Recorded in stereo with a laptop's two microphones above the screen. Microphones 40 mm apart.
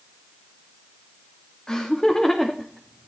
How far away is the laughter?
About 2.5 m.